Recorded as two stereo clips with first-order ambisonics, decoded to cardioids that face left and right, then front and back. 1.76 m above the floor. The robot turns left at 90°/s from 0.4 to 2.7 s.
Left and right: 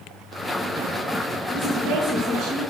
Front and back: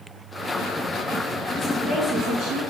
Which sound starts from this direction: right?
A woman speaking, at 1.5 s.